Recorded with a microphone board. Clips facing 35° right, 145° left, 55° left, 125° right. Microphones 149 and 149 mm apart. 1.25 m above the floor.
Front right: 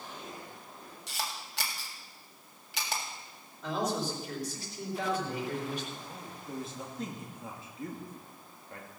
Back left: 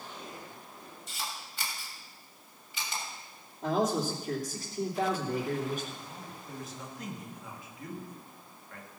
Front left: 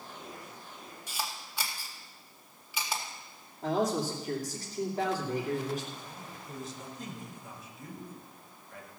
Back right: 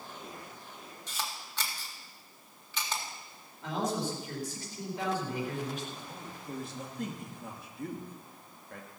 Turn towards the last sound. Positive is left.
turn(degrees=-95)